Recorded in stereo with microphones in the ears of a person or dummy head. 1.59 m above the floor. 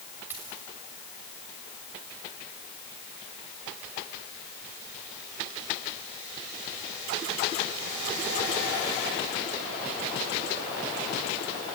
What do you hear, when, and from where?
0.3 s a dropped coin: 15° right (ahead or behind), 3 m